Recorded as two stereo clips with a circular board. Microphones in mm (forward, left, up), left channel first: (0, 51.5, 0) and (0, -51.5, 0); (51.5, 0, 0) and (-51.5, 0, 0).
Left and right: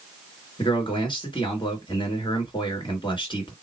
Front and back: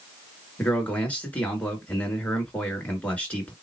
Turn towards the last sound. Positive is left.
turn(degrees=75)